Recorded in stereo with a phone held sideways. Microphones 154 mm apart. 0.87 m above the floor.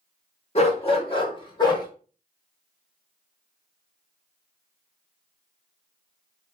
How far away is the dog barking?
About 0.9 m.